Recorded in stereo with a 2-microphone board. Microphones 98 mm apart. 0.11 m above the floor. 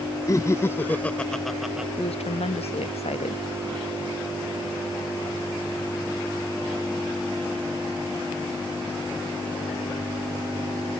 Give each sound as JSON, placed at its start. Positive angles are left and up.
{"t": 0.3, "sound": "laughter", "side_deg": 35}
{"t": 2.0, "sound": "a woman speaking", "side_deg": 85}